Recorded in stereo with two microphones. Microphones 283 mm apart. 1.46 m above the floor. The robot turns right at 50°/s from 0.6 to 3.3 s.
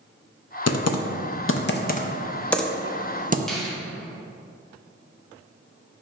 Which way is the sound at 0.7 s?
70° left (ahead or behind).